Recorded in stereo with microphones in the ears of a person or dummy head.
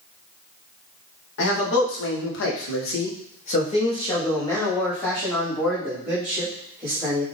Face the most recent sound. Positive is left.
turn(degrees=-15)  # may be behind; listen again after turning